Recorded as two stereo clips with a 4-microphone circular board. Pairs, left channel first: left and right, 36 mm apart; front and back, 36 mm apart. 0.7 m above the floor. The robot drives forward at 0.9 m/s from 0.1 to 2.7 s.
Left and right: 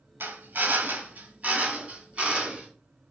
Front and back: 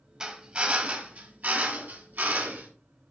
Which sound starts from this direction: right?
A drill, at 0.2 s.